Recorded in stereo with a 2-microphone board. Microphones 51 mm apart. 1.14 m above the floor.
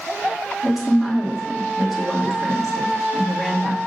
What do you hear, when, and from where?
0.6 s a woman speaking: centre (ahead or behind), 2 m